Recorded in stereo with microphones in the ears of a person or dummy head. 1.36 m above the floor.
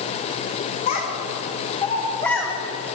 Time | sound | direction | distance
0.9 | a child speaking | 35° left (ahead or behind) | 3.5 m